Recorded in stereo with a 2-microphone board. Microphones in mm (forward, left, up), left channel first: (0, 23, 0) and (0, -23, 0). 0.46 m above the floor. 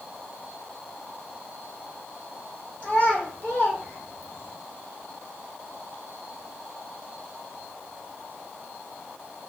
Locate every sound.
2.8 s a child speaking: 30° left (ahead or behind), 1.2 m; by 4.5 s 40° left (ahead or behind), 1.2 m